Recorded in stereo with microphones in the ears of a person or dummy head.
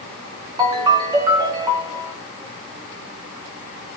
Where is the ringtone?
25° right (ahead or behind), 0.6 m.